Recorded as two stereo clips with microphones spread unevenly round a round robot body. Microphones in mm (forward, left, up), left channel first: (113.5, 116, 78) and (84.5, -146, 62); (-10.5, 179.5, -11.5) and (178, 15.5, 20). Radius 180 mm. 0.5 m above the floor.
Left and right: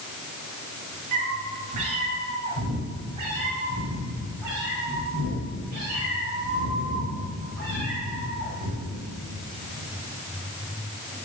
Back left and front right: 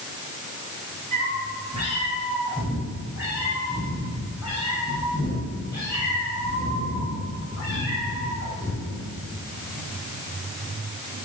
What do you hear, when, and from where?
1.1 s a cat meowing: 110° right, 3.5 m; by 9.0 s 145° right, 10 m